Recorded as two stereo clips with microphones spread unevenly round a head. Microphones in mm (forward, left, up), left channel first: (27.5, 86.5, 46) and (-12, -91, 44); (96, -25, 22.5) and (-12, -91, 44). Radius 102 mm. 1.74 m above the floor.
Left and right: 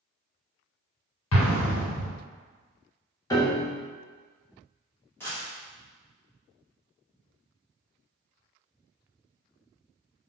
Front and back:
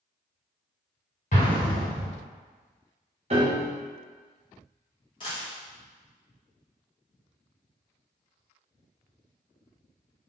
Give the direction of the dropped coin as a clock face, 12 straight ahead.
12 o'clock.